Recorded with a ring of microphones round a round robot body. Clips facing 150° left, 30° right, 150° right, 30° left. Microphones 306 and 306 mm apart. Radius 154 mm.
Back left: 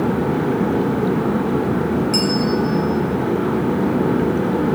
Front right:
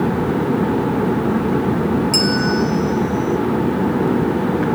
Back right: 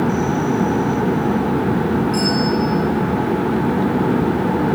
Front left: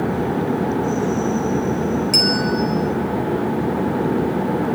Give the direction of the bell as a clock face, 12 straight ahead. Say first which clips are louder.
Even, back right 2 dB; 10 o'clock.